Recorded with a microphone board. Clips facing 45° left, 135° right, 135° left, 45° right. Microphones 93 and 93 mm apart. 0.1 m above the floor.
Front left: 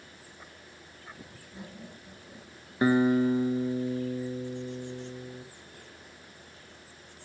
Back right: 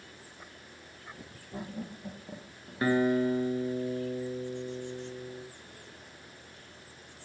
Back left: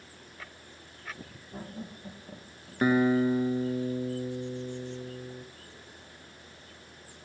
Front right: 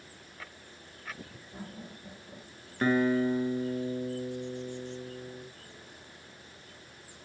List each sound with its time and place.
1.5 s laughter: 160° right, 4.5 m; by 3.1 s 170° right, 3 m
2.8 s a guitar: 80° left, 1.5 m